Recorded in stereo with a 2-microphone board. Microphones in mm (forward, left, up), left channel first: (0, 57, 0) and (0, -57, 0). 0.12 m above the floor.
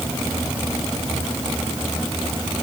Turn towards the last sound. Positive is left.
No sound to turn to.